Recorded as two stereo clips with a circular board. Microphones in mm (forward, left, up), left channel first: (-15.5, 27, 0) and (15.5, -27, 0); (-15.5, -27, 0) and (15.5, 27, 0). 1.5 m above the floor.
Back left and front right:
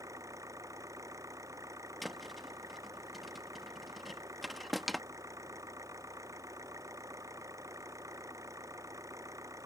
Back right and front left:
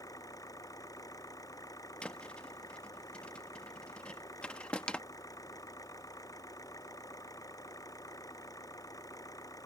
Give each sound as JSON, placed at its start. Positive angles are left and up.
{"t": 0.0, "sound": "an engine running", "azimuth_deg": -90}
{"t": 2.0, "sound": "a thud", "azimuth_deg": -155}